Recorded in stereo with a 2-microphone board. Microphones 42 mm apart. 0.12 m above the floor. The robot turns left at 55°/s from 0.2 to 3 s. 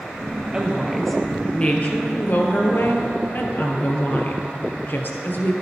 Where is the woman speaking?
155° right, 2.0 m; by 5.5 s 70° left, 2.0 m.